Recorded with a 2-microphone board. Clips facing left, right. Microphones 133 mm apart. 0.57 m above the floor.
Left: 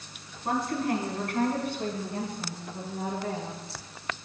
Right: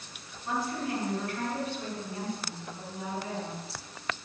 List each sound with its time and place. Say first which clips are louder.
0.5 s a woman speaking: left 4 dB; 70° left (ahead or behind), 5 m; by 3.6 s 55° left (ahead or behind), 6.5 m